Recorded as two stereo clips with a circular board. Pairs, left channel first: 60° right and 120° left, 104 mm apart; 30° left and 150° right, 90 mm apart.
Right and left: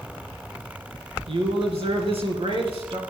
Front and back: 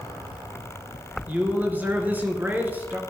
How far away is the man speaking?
About 3 m.